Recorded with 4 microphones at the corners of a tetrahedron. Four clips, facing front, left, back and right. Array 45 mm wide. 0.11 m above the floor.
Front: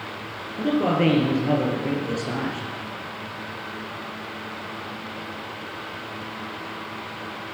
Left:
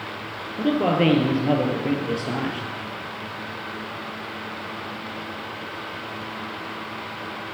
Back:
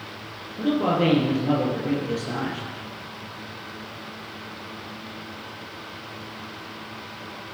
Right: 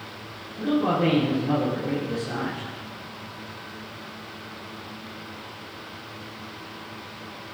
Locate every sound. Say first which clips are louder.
0.6 s a man speaking: left 2 dB, front 1 dB; 75° left, 3 m